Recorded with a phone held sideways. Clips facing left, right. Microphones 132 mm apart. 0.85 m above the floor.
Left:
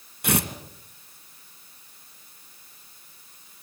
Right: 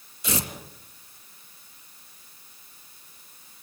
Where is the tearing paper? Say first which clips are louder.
Left 5 dB; 60° left (ahead or behind), 2.5 m.